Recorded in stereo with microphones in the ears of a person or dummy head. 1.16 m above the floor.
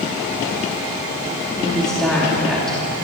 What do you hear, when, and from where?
1.6 s a woman speaking: 5° left (ahead or behind), 2.5 m